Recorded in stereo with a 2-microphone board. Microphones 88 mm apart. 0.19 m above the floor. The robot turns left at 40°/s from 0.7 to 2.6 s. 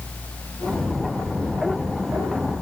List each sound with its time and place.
Only background noise.